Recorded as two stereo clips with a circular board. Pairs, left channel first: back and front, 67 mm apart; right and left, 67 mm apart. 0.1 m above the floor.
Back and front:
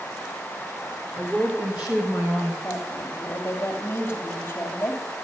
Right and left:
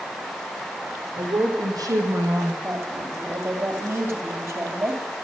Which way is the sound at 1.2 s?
75° left.